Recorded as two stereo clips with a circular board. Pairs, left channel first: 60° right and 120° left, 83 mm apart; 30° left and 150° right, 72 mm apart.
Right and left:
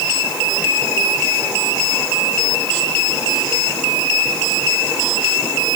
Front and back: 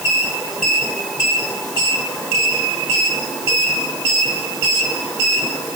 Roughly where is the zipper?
No zipper in this recording.